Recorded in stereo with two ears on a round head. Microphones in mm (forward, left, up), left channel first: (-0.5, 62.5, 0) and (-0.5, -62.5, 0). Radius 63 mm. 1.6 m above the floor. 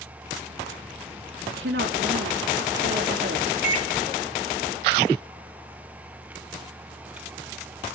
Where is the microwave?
70° right (ahead or behind), 3.5 m.